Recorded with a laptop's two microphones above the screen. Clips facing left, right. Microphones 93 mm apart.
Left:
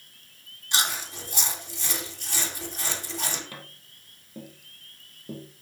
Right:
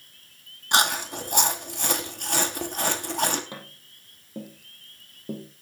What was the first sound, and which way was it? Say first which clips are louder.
Chewing: right 7 dB; 60° right (ahead or behind).